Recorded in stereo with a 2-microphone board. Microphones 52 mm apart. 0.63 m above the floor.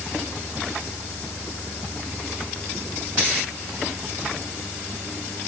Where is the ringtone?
I don't hear a ringtone.